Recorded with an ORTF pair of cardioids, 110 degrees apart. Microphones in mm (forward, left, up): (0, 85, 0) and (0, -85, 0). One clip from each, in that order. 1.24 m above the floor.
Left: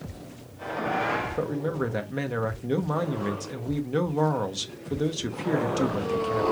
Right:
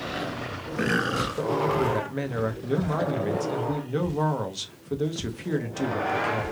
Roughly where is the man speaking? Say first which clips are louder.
Right 4 dB; ahead.